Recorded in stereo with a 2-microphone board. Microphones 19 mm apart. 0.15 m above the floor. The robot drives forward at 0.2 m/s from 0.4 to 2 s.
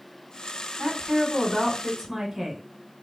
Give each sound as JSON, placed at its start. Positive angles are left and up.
{"t": 0.8, "sound": "a woman speaking", "side_deg": -15, "distance_m": 1.1}